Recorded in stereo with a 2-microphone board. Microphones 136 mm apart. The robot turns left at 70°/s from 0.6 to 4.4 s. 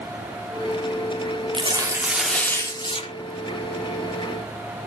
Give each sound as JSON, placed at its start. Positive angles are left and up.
{"t": 1.5, "sound": "tearing paper", "azimuth_deg": -130, "distance_m": 1.7}